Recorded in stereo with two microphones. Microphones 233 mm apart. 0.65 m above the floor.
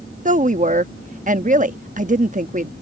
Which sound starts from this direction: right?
A woman speaking, at 0.2 s.